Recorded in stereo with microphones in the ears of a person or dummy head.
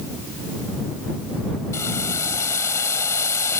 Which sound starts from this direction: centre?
Boiling, at 1.7 s.